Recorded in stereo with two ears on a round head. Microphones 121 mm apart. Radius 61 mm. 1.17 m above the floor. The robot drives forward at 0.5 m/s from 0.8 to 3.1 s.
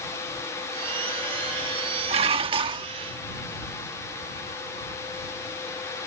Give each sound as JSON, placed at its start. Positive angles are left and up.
{"t": 2.1, "sound": "dishes clattering", "side_deg": -45}